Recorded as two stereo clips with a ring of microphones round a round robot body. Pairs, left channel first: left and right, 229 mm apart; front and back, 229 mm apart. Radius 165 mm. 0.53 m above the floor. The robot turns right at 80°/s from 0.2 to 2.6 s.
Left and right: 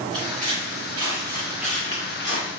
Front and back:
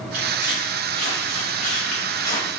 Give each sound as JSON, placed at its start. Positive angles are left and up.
{"t": 0.1, "sound": "footsteps", "azimuth_deg": -145, "distance_m": 2.0}